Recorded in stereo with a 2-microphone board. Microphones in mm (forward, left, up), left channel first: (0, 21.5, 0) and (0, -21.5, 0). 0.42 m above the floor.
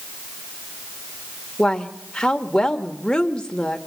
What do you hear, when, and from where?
1.6 s a woman speaking: 15° left (ahead or behind), 1.4 m